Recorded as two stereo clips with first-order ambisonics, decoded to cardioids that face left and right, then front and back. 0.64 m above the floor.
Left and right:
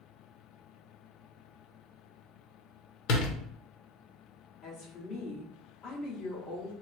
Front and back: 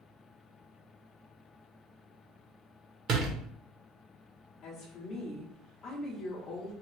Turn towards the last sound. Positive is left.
turn(degrees=55)